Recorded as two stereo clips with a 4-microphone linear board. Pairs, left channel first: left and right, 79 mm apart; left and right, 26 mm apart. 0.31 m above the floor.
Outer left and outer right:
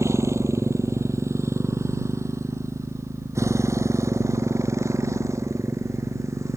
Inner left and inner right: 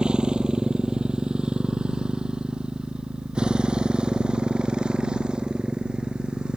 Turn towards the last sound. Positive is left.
turn(degrees=-40)  # may be behind; listen again after turning